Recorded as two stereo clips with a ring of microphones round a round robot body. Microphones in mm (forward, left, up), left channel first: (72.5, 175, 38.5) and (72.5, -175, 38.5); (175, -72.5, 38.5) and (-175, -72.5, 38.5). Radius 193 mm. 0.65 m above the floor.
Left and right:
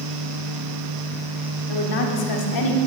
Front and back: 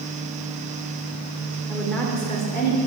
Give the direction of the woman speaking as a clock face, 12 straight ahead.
9 o'clock.